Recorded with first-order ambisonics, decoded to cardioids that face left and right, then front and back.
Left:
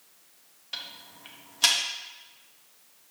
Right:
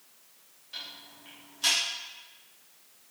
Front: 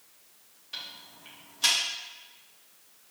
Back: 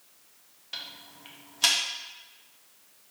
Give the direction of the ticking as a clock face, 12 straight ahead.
8 o'clock.